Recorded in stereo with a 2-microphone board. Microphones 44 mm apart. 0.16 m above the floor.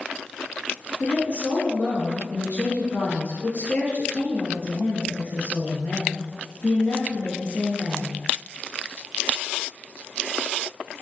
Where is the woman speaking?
35° left (ahead or behind), 1.9 m.